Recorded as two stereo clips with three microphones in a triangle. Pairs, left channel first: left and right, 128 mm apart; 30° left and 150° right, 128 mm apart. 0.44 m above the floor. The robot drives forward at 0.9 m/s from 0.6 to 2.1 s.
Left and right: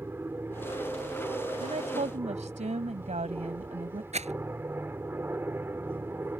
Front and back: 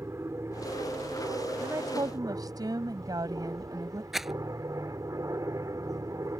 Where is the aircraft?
130° right; by 6.4 s 140° right.